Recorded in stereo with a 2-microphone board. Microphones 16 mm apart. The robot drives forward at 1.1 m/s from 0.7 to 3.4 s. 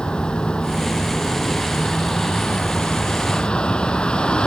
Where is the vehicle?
75° left (ahead or behind); by 4.5 s 85° left.